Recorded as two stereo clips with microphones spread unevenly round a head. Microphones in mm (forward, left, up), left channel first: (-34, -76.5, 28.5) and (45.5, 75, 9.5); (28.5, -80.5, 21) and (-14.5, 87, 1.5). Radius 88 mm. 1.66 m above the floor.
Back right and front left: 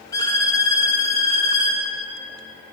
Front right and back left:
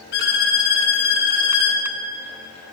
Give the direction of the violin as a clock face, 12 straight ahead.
2 o'clock.